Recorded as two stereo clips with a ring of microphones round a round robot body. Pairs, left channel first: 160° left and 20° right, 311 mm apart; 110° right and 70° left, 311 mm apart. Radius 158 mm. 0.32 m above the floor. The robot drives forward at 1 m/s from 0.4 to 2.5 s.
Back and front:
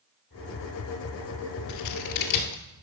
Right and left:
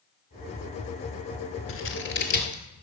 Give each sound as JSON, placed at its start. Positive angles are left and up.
{"t": 1.7, "sound": "scissors", "azimuth_deg": -165, "distance_m": 1.0}